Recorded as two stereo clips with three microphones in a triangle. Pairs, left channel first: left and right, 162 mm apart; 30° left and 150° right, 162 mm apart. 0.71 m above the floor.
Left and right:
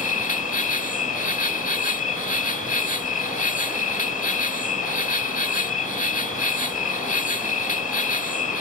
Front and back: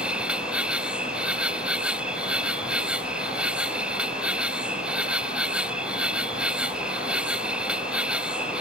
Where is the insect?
125° left.